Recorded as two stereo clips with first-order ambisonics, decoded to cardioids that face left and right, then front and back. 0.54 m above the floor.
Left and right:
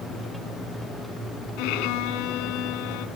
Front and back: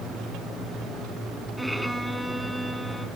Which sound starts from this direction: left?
A violin, at 1.6 s.